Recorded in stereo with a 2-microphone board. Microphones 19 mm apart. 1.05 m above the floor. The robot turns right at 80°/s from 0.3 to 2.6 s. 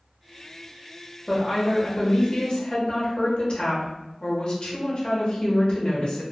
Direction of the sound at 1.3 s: 10° right.